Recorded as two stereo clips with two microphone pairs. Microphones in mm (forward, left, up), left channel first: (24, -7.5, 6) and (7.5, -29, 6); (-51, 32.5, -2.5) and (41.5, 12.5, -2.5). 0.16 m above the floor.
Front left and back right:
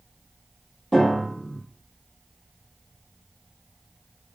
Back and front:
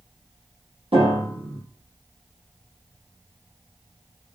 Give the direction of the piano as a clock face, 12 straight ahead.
1 o'clock.